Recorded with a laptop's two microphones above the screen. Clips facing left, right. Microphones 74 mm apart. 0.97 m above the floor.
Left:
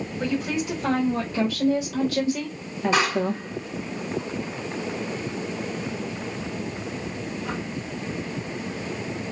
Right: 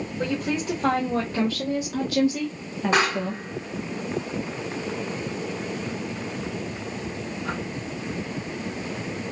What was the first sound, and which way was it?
A woman speaking, 45° right (ahead or behind).